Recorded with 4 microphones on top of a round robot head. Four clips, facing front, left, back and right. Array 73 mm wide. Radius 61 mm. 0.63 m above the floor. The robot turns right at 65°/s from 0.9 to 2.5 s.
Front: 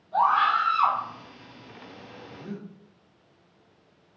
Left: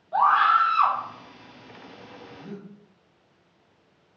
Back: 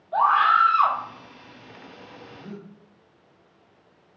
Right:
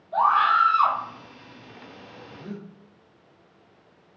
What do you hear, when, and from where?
0.1 s a scream: 140° left, 1.6 m; by 1.0 s 145° left, 1.6 m
2.3 s breathing: 90° right, 1.0 m; by 2.7 s 80° right, 1.0 m